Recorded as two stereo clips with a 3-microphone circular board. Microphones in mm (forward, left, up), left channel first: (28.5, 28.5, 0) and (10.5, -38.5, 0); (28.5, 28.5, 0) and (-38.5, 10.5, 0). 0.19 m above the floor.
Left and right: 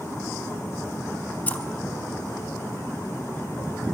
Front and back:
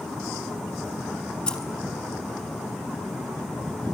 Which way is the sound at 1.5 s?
70° left.